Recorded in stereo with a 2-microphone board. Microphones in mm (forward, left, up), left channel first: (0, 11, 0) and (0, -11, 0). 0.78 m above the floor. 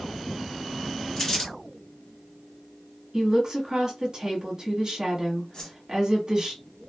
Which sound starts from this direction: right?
A woman speaking, at 3.1 s.